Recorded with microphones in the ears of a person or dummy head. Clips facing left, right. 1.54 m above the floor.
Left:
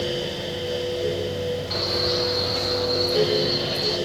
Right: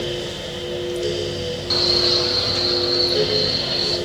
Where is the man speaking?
50° right (ahead or behind), 2 m; by 4.0 s 15° right (ahead or behind), 5 m.